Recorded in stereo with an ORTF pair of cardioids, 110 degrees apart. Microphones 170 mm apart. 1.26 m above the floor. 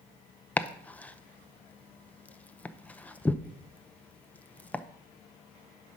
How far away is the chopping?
About 0.7 m.